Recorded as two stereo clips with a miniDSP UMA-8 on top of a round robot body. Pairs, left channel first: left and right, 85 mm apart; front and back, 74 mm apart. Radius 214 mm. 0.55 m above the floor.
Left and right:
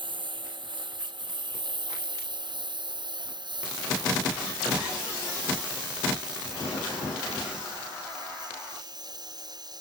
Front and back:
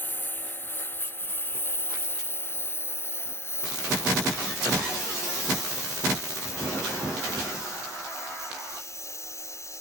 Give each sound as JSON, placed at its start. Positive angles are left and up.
{"t": 0.0, "sound": "a lawn mower", "azimuth_deg": -65}